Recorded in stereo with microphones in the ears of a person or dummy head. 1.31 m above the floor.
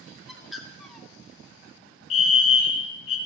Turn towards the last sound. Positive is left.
turn(degrees=35)  # may be behind; listen again after turning